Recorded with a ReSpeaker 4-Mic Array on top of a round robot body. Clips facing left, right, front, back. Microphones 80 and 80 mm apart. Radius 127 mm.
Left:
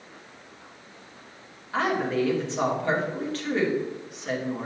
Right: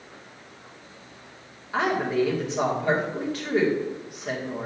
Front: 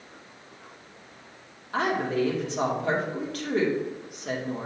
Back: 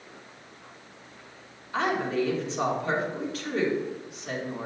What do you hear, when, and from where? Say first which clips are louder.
1.7 s a woman speaking: right 1 dB, front 1 dB; 10° right, 2.5 m